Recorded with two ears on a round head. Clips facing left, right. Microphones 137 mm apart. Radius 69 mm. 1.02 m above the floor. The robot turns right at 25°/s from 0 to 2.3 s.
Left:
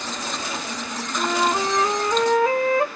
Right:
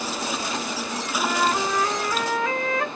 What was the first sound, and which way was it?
A flute, 5° left (ahead or behind).